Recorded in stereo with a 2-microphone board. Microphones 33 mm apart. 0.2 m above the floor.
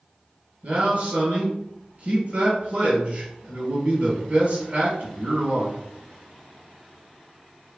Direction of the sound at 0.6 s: 40° right (ahead or behind).